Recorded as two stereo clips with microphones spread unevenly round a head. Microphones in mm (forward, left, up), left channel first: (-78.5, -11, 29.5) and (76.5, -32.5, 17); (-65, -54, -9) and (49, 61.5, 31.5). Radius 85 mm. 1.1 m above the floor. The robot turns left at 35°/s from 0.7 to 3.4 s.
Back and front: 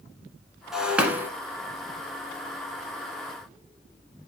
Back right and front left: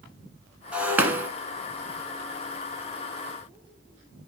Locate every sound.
0.7 s breaking glass: 85° left, 1.1 m; by 1.3 s 65° left, 1.1 m